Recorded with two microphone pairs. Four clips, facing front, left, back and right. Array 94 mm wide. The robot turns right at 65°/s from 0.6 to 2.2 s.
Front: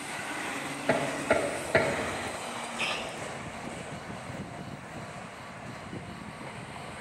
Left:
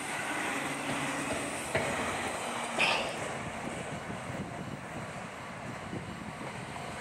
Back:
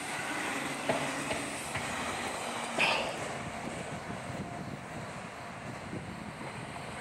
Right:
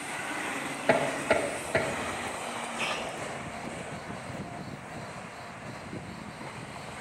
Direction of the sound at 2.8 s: 150° left.